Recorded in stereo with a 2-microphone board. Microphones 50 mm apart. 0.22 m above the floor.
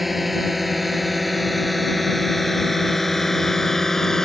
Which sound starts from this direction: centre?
A drone, at 0.0 s.